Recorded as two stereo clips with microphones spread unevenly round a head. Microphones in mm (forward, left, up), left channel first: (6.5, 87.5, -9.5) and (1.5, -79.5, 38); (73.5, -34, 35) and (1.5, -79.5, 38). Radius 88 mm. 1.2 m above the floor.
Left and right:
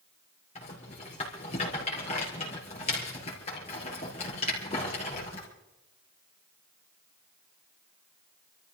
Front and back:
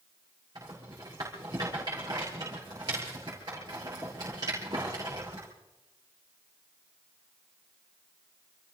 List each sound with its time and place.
0.6 s a rattle: 145° left, 4.5 m